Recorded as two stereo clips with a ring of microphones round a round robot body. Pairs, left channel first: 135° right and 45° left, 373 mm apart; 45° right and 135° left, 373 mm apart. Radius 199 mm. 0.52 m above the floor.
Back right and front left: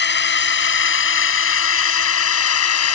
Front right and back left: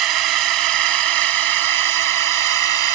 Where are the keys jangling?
No keys jangling in this recording.